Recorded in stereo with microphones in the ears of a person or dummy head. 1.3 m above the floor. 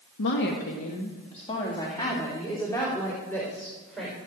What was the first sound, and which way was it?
A woman speaking, 65° left (ahead or behind).